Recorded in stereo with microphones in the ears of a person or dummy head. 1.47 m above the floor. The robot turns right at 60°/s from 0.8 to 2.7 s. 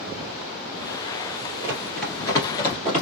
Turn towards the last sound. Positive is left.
turn(degrees=25)  # may be behind; listen again after turning